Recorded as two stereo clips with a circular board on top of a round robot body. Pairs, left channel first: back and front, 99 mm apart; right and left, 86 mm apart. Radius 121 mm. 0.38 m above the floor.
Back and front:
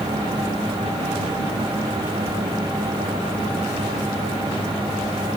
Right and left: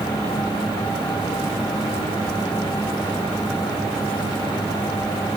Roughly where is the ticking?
No ticking in this recording.